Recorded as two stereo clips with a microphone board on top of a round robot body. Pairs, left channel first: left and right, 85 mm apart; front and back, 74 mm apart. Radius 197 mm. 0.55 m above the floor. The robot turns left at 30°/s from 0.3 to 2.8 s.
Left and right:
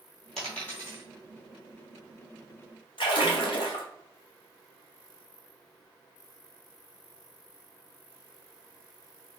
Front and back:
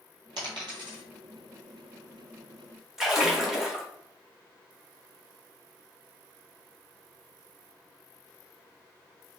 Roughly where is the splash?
Left.